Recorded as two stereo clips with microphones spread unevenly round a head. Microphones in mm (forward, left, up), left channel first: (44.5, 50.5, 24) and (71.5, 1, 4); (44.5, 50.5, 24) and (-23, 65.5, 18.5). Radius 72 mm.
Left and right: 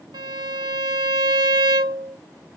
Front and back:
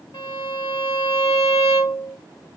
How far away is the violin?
About 0.9 m.